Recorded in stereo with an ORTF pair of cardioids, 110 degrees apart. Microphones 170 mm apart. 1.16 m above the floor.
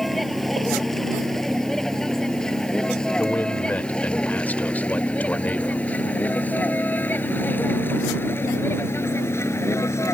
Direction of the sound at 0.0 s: Straight ahead.